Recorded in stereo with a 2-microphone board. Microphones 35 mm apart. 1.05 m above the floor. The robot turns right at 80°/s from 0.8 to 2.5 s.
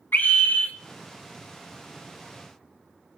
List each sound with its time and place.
0.1 s a scream: 70° left (ahead or behind), 2 m